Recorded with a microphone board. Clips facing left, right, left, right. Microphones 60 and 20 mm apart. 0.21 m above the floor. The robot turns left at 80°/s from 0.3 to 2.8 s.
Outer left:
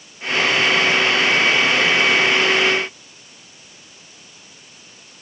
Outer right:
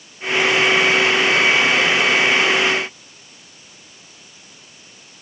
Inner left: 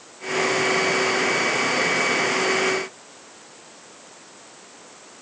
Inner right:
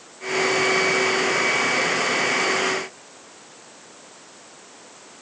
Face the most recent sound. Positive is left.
No sound to turn to.